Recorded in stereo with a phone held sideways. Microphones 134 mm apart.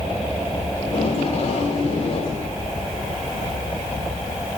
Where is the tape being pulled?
45° left (ahead or behind), 3 m.